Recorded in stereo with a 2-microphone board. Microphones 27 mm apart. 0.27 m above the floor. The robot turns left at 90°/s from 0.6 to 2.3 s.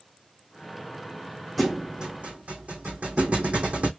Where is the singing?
I don't hear singing.